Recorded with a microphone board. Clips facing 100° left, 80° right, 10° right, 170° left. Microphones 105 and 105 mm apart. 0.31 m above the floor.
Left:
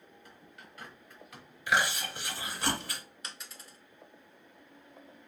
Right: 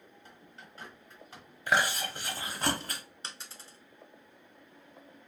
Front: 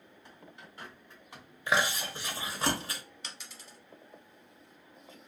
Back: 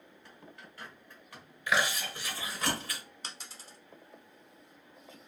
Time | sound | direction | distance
0.2 | a bird | 65° right | 1.2 m
1.7 | chewing | 65° right | 0.8 m
3.2 | a dropped coin | 135° right | 0.7 m